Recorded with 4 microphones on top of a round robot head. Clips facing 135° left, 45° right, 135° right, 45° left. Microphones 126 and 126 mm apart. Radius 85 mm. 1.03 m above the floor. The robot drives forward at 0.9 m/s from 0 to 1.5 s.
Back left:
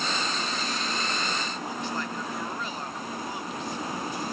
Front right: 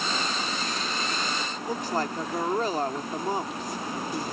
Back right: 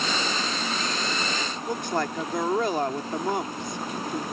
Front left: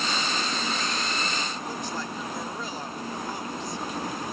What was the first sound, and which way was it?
A woman speaking, 100° right.